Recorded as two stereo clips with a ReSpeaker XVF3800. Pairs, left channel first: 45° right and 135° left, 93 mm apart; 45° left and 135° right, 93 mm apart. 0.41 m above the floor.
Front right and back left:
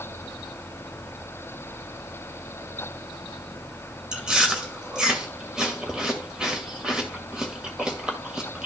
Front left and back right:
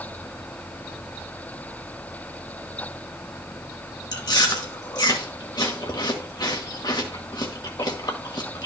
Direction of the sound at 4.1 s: 55° left.